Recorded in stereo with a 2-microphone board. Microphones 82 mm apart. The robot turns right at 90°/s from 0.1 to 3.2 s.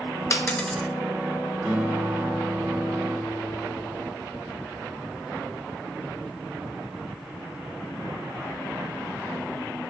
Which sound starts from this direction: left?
A dropped coin, at 0.3 s.